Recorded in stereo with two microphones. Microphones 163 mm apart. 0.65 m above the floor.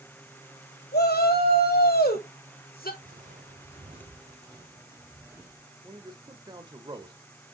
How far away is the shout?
About 3.5 m.